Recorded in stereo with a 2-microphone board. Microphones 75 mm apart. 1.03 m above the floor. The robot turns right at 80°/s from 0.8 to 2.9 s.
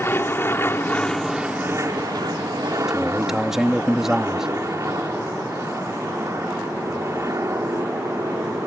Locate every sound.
0.0 s an aircraft: 145° left; by 8.7 s 45° right
2.9 s a man speaking: 5° right (ahead or behind)